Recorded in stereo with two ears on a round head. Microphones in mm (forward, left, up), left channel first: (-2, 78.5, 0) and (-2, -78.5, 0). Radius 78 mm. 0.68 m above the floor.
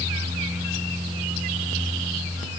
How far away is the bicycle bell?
I don't hear a bicycle bell.